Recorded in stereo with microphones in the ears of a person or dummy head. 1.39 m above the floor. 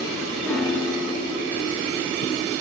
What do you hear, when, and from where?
0.4 s a piano: centre (ahead or behind), 1.5 m